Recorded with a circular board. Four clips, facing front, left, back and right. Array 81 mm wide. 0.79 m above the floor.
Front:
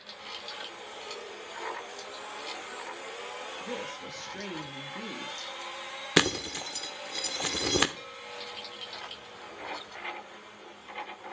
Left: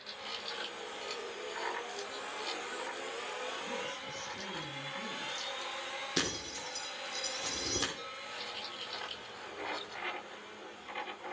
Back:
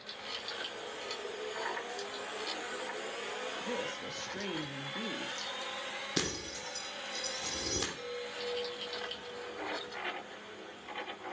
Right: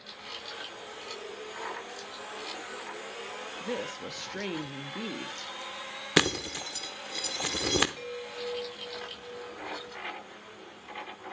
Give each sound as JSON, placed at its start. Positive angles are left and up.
{"t": 3.6, "sound": "a woman speaking", "azimuth_deg": -90, "distance_m": 0.8}
{"t": 6.2, "sound": "breaking glass", "azimuth_deg": -45, "distance_m": 0.8}
{"t": 8.0, "sound": "a chime", "azimuth_deg": -70, "distance_m": 4.0}